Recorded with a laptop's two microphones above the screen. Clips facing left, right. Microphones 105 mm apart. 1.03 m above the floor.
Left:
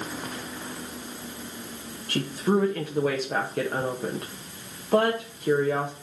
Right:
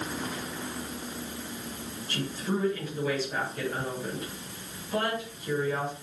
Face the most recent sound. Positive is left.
turn(degrees=60)  # may be behind; listen again after turning